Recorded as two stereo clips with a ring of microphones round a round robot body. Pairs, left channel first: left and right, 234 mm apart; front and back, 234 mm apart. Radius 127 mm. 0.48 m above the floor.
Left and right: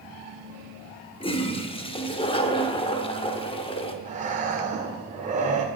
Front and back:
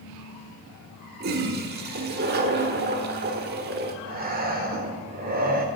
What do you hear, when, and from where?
1.2 s a toilet flushing: 150° left, 1.1 m
4.0 s breathing: 140° right, 1.8 m